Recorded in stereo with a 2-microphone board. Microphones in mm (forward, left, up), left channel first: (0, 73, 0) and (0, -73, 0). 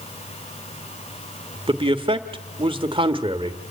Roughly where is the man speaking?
Right.